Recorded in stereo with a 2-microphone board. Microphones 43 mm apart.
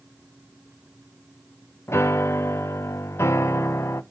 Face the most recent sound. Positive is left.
turn(degrees=80)